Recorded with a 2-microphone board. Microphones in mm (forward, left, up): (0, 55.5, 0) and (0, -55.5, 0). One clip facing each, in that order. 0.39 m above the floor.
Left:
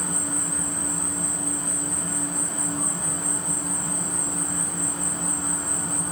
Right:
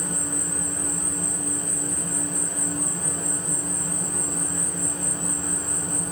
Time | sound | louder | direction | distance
0.0 | an insect | even | 80° left | 1.2 m